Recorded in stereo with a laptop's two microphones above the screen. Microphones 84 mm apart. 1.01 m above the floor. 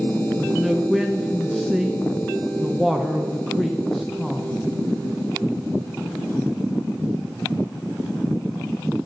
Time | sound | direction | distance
0.4 | a man speaking | centre (ahead or behind) | 0.6 m